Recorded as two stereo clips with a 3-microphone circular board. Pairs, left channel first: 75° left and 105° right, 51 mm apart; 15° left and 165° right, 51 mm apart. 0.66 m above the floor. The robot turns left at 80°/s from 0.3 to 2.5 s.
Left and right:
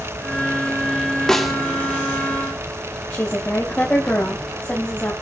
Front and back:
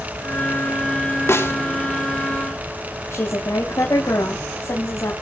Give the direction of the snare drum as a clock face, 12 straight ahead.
12 o'clock.